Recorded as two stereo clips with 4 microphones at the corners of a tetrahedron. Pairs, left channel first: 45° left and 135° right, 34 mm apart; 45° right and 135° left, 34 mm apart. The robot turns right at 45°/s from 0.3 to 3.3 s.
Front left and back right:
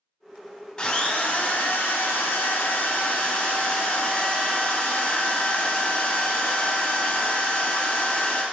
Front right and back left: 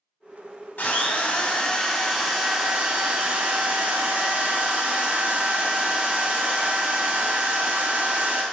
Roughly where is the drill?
Ahead.